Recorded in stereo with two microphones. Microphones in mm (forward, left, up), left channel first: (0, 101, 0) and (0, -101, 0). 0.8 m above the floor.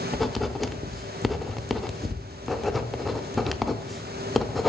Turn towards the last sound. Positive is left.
turn(degrees=0)  # may be behind; listen again after turning